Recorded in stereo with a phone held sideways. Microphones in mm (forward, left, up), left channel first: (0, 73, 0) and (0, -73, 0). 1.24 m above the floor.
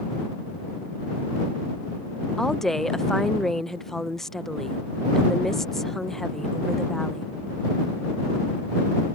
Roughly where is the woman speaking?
Centre.